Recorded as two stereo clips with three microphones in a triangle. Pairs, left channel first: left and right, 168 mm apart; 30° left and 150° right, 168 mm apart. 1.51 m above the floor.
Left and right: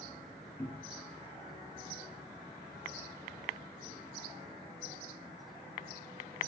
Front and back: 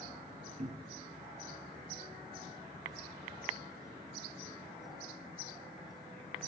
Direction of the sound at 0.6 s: 170° left.